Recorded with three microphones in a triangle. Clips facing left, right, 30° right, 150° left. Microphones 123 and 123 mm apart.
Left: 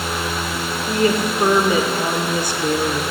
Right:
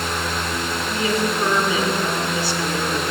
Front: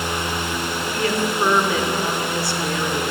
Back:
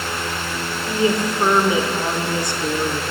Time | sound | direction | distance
0.9 | a woman speaking | 90° left | 1.0 m